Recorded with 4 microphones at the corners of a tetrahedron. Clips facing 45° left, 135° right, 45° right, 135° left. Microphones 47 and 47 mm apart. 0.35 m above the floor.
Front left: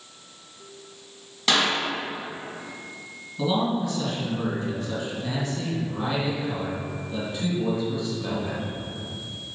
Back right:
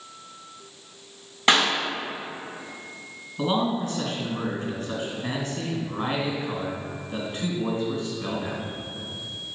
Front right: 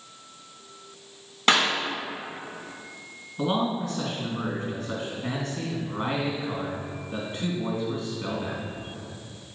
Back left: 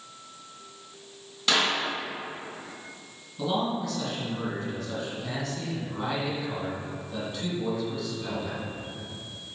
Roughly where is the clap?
Right.